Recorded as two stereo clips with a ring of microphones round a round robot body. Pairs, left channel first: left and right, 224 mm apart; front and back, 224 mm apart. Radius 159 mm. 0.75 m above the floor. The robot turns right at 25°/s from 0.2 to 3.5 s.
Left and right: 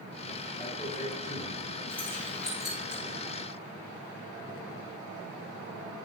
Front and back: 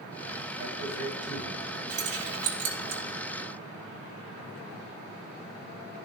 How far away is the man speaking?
About 4 m.